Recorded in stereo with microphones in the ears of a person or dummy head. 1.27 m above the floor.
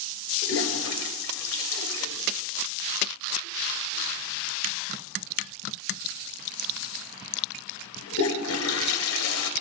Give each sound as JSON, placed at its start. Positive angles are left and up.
{"t": 0.4, "sound": "a toilet flushing", "side_deg": 65, "distance_m": 1.1}